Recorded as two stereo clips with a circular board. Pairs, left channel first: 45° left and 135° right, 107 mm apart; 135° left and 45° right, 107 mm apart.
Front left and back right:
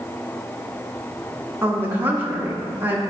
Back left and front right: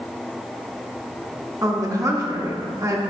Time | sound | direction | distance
1.6 | a woman speaking | 75° right | 1.2 m